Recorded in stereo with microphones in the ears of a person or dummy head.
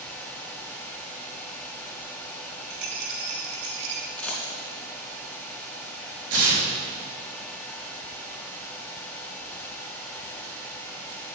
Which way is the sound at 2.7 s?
60° right (ahead or behind).